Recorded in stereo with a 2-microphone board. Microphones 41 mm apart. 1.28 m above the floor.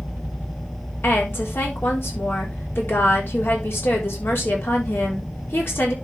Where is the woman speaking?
70° left (ahead or behind), 4 m.